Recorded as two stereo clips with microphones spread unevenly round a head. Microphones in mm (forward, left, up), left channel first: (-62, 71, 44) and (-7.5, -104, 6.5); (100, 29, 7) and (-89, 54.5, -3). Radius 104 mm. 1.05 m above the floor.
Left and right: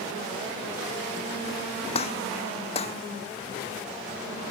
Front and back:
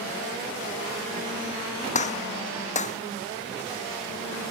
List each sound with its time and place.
1.9 s a gunshot: 45° left